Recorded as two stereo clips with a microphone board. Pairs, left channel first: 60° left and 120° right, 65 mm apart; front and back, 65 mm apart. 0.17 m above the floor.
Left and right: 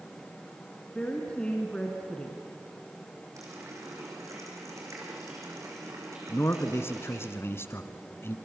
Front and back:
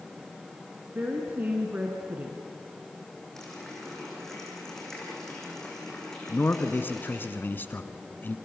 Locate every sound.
0.9 s a woman speaking: 130° left, 2 m
3.4 s a running tap: 85° right, 5.5 m
6.3 s a man speaking: 40° left, 1.3 m